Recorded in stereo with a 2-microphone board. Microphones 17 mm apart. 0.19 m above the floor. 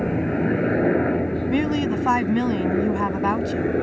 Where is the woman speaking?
Centre (ahead or behind).